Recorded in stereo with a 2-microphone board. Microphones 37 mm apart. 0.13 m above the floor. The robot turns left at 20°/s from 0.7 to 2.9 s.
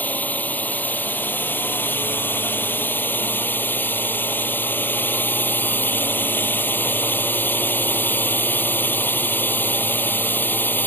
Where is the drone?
125° left; by 10.9 s 80° left.